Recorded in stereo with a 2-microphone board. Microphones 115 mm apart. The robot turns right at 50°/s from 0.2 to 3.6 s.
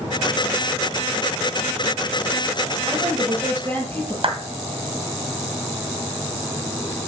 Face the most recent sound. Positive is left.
turn(degrees=-50)  # may be behind; listen again after turning